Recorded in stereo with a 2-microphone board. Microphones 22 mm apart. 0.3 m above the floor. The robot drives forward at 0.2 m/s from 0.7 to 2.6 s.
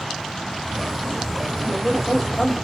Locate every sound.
1.6 s a woman speaking: 10° right (ahead or behind), 1.7 m; by 2.5 s 5° right (ahead or behind), 1.8 m